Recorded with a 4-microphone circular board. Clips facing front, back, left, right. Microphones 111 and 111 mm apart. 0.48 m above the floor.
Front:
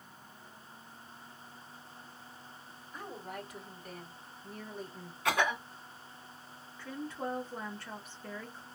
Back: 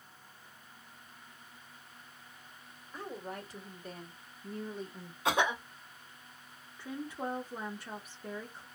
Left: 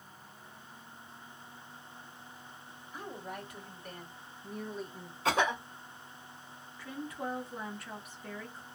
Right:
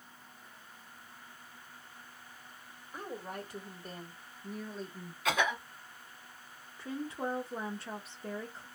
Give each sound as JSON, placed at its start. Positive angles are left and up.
{"t": 2.9, "sound": "a woman speaking", "azimuth_deg": -130, "distance_m": 1.8}
{"t": 5.2, "sound": "a cough", "azimuth_deg": 125, "distance_m": 1.3}
{"t": 6.8, "sound": "a woman speaking", "azimuth_deg": -115, "distance_m": 0.8}